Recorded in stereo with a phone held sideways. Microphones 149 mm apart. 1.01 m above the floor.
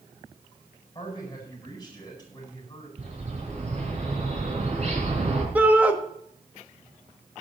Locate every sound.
0.9 s a man speaking: 30° left (ahead or behind), 9 m
3.0 s a bird: 45° right (ahead or behind), 4 m
5.5 s a shout: 10° right (ahead or behind), 1.7 m